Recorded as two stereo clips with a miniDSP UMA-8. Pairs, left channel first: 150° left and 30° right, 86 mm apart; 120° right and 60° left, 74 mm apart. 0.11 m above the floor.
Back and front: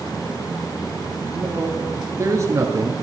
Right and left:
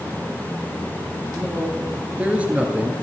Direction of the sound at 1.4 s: Straight ahead.